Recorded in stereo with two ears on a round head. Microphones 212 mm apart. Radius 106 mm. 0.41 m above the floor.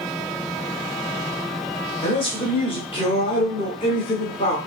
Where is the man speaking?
25° left (ahead or behind), 1.1 m.